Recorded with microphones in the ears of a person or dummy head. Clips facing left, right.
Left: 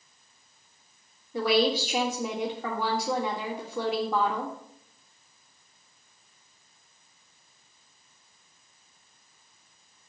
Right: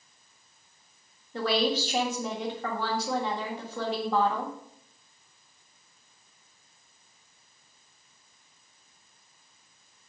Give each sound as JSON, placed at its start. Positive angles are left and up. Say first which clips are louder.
{"t": 1.3, "sound": "a woman speaking", "louder": "left 3 dB", "side_deg": 5, "distance_m": 1.9}